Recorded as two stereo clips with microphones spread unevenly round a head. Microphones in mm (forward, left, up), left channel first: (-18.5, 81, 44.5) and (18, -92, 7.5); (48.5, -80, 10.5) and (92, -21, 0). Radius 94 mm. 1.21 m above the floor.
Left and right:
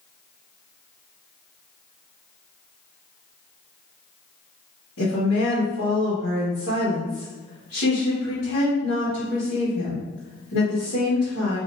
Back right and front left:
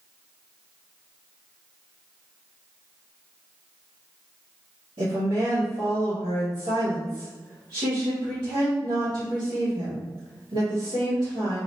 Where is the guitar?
I don't hear a guitar.